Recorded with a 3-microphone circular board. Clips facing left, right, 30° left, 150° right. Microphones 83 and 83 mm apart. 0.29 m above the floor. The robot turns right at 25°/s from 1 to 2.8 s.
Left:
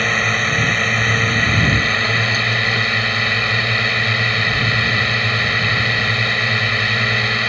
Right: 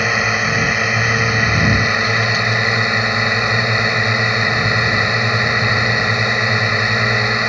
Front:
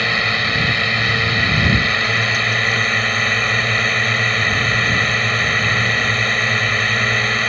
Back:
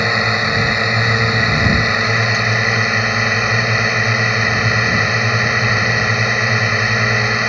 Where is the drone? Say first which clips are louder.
Right 1 dB, back 3 dB; 150° right; by 7.5 s 105° right.